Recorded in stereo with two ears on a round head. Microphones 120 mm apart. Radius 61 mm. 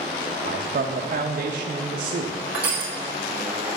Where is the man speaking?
60° right (ahead or behind), 0.6 m.